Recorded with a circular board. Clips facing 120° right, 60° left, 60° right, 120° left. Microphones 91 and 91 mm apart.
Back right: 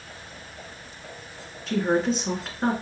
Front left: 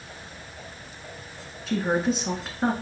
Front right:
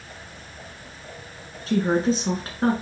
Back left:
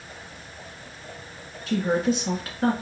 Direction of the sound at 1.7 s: 25° right.